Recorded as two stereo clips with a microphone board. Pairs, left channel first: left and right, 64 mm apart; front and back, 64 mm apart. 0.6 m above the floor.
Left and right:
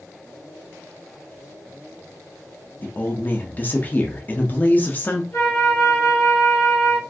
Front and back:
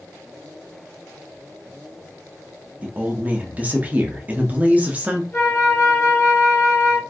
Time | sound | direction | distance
2.8 | a woman speaking | 135° left | 0.7 m
5.3 | a flute | 60° left | 2 m